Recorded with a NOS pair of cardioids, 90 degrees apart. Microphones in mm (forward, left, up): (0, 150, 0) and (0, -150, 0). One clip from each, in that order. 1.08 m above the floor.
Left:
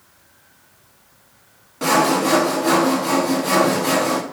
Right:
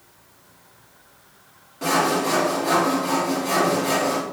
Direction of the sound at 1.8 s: 40° left.